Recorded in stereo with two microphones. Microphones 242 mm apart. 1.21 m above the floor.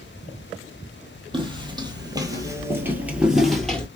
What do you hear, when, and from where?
1.3 s footsteps: 20° right (ahead or behind), 1.7 m; by 3.9 s 5° left (ahead or behind), 1.3 m